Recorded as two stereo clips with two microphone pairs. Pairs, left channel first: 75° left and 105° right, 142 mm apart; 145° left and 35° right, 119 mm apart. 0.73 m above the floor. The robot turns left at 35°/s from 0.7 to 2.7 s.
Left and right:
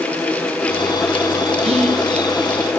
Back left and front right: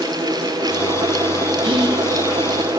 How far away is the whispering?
About 1.2 m.